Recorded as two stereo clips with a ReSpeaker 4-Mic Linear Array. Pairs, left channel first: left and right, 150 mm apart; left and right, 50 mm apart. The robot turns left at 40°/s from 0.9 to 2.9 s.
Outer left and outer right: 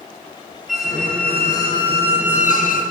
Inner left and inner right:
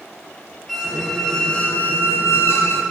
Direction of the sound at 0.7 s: Straight behind.